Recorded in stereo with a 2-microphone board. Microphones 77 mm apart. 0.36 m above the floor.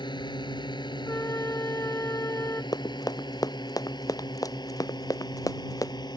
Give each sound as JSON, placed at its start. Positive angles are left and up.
{"t": 0.0, "sound": "a drone", "side_deg": 80}
{"t": 1.1, "sound": "a flute", "side_deg": 35}
{"t": 2.7, "sound": "running footsteps", "side_deg": 55}